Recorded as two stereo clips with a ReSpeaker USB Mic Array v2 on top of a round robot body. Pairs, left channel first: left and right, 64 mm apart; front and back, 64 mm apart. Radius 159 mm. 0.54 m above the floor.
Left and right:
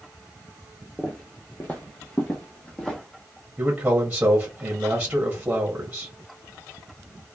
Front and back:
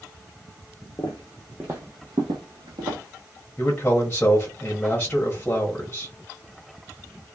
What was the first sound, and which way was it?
Footsteps, 5° right.